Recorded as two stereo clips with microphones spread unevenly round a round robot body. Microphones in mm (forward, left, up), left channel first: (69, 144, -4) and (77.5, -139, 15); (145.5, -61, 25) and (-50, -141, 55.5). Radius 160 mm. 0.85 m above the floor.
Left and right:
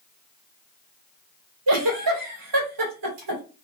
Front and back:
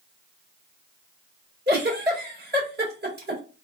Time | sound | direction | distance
1.7 | a giggle | 115° right | 1.8 m